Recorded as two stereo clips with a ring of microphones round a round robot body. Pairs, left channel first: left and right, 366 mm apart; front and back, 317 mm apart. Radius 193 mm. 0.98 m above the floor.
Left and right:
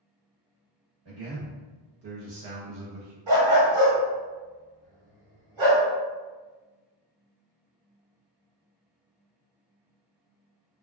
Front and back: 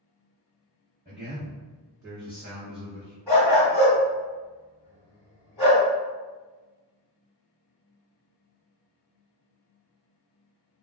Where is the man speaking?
105° right, 1.4 m; by 3.2 s 75° right, 0.5 m.